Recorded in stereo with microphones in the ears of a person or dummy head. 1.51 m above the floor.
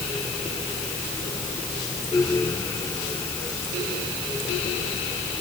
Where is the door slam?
No door slam in this recording.